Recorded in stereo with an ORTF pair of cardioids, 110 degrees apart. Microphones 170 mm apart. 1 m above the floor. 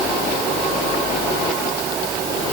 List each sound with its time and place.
Only background noise.